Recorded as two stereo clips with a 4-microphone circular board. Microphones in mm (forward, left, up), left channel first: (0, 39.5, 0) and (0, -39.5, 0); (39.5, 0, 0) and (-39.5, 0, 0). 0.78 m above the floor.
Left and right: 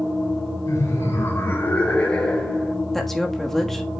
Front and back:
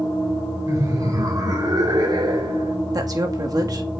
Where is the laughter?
140° left, 3 m; by 2.8 s 175° left, 2.5 m.